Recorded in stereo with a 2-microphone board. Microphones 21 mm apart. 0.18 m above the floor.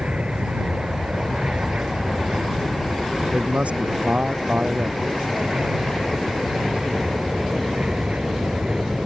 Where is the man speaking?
80° right.